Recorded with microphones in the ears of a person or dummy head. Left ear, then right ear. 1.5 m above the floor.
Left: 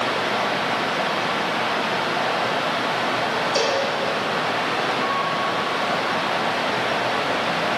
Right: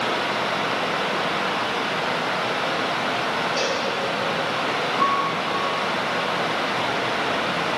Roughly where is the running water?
Centre.